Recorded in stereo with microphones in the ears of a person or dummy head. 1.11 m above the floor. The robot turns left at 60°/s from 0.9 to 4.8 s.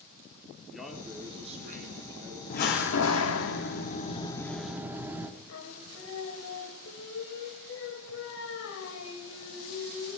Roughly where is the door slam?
Behind left.